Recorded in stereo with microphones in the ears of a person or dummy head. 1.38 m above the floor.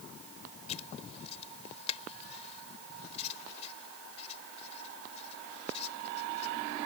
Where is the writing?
35° left (ahead or behind).